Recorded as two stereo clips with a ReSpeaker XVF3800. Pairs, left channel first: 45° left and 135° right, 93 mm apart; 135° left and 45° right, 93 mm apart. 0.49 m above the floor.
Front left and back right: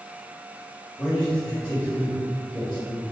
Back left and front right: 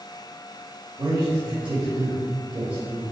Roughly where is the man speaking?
Ahead right.